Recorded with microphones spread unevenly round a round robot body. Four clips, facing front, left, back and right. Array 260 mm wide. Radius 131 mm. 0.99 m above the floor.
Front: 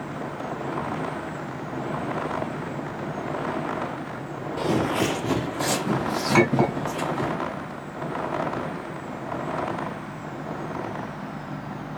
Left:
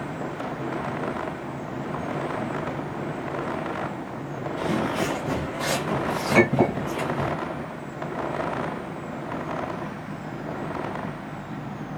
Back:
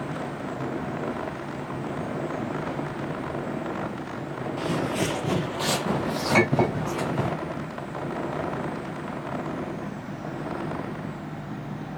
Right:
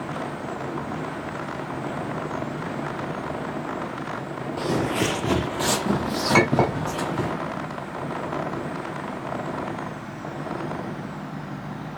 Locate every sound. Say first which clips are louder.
4.6 s footsteps: right 1 dB, front 4 dB; 35° right, 1.0 m; by 7.3 s 125° right, 3 m
6.3 s a clink: even, front 2 dB; 95° right, 3 m